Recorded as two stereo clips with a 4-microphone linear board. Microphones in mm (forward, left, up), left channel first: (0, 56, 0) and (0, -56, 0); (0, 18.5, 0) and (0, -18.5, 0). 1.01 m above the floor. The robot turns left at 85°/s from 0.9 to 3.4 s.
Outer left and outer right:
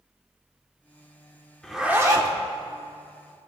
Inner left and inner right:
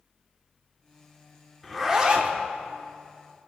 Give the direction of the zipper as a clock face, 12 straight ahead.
12 o'clock.